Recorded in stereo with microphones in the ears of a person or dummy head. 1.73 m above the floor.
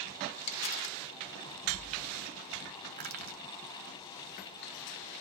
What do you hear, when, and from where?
0.5 s crumpling: 35° left (ahead or behind), 1.4 m
3.0 s crushing: 45° right (ahead or behind), 0.8 m